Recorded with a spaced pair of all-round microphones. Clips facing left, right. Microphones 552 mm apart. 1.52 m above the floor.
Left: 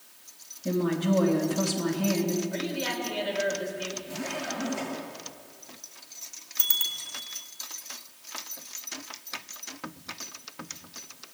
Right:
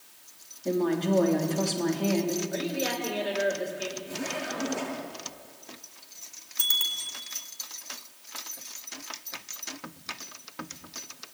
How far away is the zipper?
About 8.5 m.